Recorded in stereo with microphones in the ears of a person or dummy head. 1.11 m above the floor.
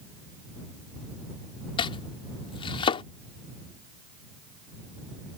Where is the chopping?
30° left (ahead or behind).